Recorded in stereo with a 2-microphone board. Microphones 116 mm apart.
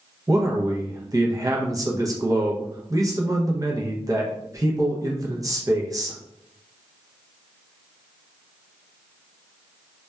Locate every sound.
0.3 s a man speaking: 30° right (ahead or behind), 0.5 m